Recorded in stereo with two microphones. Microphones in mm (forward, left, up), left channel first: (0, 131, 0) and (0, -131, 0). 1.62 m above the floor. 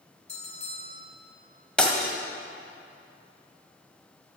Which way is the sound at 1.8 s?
5° left (ahead or behind).